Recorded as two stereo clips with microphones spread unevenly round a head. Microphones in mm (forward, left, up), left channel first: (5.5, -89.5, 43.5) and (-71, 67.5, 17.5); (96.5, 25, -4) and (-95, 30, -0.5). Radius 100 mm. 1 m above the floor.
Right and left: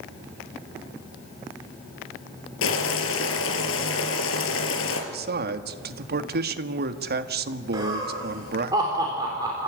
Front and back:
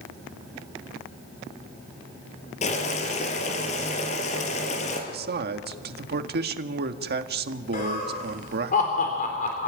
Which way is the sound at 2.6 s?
60° right.